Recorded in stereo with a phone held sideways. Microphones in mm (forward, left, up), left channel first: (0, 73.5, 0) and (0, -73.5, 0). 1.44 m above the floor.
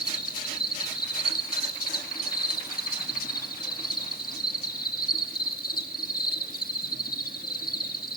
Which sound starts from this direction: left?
An insect, at 0.0 s.